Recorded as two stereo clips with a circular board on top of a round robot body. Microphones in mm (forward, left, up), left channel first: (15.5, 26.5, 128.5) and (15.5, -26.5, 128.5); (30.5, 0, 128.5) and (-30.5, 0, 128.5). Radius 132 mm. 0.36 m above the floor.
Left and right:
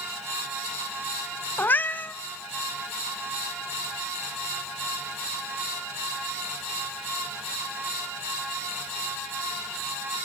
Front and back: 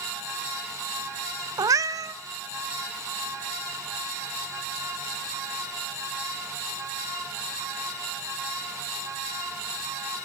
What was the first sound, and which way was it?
A cat meowing, 150° left.